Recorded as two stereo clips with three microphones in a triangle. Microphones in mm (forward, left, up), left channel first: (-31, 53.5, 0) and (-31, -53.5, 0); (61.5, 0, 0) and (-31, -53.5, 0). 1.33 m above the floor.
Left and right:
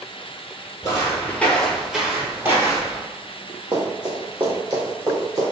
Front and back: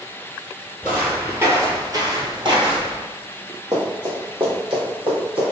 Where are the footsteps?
130° left, 1.7 m; by 3.0 s 135° right, 2 m.